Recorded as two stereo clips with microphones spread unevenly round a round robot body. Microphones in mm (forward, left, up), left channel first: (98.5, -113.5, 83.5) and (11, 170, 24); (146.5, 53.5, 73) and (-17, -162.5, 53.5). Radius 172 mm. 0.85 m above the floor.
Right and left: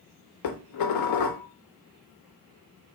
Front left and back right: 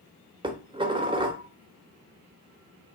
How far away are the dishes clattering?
About 0.7 m.